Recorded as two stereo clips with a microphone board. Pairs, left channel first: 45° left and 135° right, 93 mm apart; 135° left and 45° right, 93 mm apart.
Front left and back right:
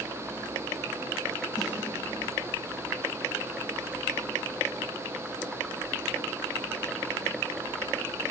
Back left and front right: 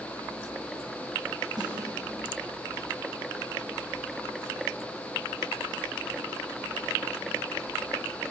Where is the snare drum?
Straight ahead, 7 m.